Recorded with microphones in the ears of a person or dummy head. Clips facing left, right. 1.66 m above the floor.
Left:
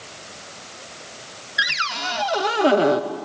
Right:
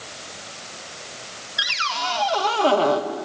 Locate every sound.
1.6 s a cupboard door: 25° left (ahead or behind), 0.8 m